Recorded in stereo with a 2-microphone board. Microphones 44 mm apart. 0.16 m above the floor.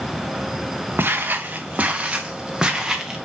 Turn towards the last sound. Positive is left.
turn(degrees=-10)  # may be behind; listen again after turning